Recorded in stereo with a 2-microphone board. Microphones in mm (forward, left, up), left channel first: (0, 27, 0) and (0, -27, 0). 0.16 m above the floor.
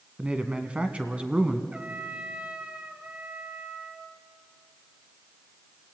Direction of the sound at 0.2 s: 20° right (ahead or behind).